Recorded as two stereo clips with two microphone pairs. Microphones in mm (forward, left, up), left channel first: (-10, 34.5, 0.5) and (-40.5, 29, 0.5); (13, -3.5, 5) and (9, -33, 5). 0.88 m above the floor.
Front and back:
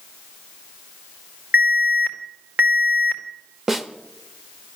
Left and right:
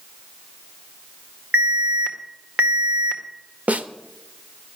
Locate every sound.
1.5 s an alarm: 145° right, 1.9 m
3.7 s a snare drum: 95° right, 0.8 m